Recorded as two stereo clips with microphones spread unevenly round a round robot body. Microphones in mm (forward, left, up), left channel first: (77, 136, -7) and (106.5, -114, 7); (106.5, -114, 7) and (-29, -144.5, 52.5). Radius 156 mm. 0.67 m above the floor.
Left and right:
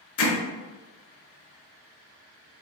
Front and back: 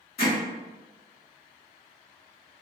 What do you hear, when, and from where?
0.2 s hammering: 65° left, 0.7 m